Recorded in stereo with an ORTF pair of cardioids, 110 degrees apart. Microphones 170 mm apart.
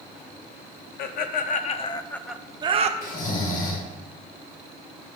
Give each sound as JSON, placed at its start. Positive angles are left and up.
{"t": 1.0, "sound": "laughter", "azimuth_deg": 60, "distance_m": 1.0}
{"t": 3.0, "sound": "snoring", "azimuth_deg": 55, "distance_m": 1.5}